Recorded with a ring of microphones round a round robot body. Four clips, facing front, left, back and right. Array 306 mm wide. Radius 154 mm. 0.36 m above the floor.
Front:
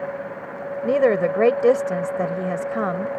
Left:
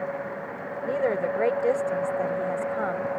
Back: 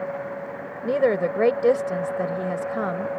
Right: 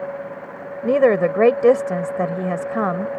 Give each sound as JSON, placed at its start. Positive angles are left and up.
{"t": 0.8, "sound": "a woman speaking", "azimuth_deg": -80}